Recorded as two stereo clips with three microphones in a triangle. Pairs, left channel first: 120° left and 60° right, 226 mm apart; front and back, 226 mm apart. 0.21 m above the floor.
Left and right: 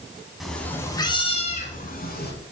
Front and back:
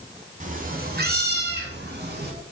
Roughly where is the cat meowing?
Behind right.